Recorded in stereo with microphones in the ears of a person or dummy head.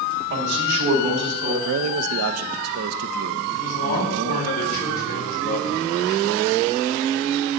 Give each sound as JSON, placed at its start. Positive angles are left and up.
{"t": 0.3, "sound": "a man speaking", "side_deg": -65, "distance_m": 2.5}
{"t": 1.6, "sound": "a man speaking", "side_deg": -80, "distance_m": 0.6}
{"t": 3.5, "sound": "a man speaking", "side_deg": 40, "distance_m": 5.5}